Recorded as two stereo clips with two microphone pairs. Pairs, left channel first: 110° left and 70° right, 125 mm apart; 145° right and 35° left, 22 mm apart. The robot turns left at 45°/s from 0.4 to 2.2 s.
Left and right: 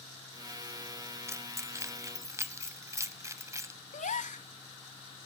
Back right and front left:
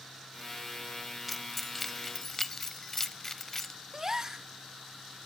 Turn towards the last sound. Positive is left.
turn(degrees=100)